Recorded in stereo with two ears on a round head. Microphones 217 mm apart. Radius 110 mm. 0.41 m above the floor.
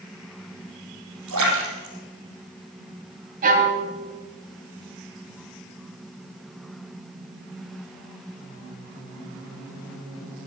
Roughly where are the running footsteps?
No running footsteps in this recording.